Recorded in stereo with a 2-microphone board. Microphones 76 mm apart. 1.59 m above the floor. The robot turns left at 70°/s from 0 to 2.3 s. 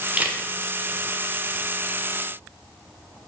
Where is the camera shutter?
15° right (ahead or behind), 1.0 m; by 0.4 s 30° right (ahead or behind), 1.0 m.